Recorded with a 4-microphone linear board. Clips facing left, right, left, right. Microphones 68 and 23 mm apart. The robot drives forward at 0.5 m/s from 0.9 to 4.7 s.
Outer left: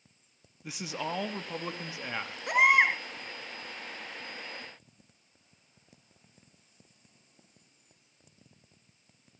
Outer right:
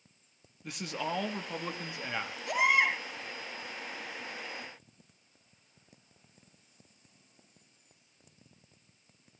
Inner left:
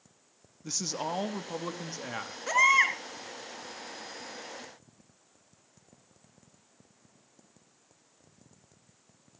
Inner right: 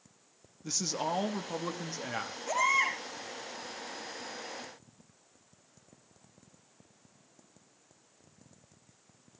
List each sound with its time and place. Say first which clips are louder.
0.6 s a man speaking: even, inner right 1 dB; 5° left (ahead or behind), 1.0 m
2.5 s a baby crying: outer left 4 dB, inner left 5 dB; 60° left (ahead or behind), 2.5 m; by 3.0 s 55° left (ahead or behind), 3 m